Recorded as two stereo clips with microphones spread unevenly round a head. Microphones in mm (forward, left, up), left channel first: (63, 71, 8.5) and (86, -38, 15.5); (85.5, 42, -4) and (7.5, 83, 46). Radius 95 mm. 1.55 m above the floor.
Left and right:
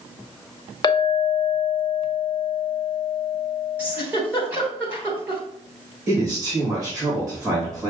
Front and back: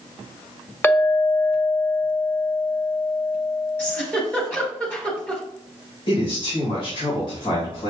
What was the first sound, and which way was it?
A clink, 55° left.